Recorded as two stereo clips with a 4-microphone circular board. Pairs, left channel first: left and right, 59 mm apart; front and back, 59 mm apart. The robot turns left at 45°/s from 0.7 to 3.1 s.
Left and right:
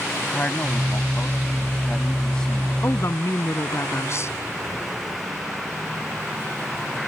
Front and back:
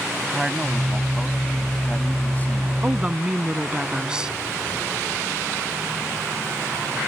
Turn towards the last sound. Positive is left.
turn(degrees=105)